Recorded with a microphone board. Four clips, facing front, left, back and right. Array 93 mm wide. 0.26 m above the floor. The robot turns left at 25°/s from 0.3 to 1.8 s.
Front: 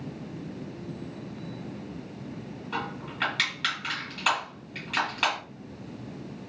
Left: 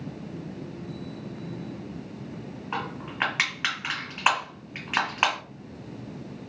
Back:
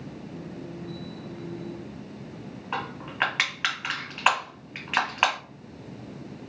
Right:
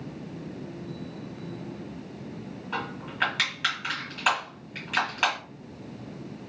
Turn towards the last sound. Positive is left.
turn(degrees=145)